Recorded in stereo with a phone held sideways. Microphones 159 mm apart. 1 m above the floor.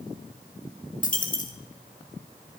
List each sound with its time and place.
1.0 s a dropped coin: 55° left (ahead or behind), 1.1 m